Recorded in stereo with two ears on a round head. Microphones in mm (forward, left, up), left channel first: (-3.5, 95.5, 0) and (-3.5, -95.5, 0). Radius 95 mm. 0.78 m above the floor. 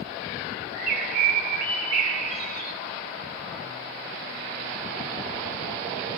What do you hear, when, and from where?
0.7 s a bird: 55° right (ahead or behind), 2 m